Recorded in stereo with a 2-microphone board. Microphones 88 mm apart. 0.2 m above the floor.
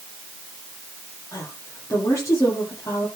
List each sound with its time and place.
1.3 s a woman speaking: 35° left (ahead or behind), 6.5 m